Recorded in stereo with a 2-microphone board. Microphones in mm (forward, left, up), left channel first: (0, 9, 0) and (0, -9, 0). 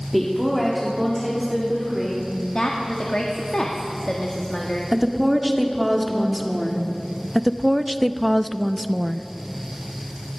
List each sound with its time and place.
0.1 s a woman speaking: 5° left (ahead or behind), 1.9 m; by 2.3 s 15° right (ahead or behind), 3 m
2.5 s a woman speaking: 55° left (ahead or behind), 1.4 m
4.9 s a woman speaking: 10° right (ahead or behind), 1.6 m
7.3 s a woman speaking: 10° right (ahead or behind), 0.5 m